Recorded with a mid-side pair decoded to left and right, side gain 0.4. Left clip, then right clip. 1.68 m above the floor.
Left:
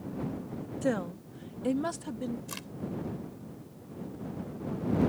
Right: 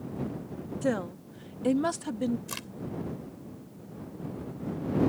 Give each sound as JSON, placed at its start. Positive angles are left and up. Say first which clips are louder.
{"t": 0.8, "sound": "a woman speaking", "louder": "right 1 dB", "azimuth_deg": -5}
{"t": 2.5, "sound": "a crack", "louder": "right 3 dB", "azimuth_deg": -25}